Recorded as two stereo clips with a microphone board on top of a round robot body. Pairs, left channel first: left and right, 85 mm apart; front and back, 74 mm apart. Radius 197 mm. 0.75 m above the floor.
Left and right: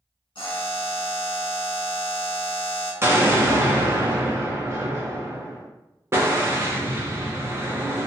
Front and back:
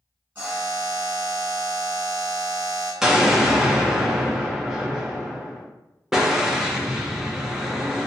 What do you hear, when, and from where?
0.3 s a buzzer: 115° left, 1.0 m
3.0 s an explosion: 105° right, 1.0 m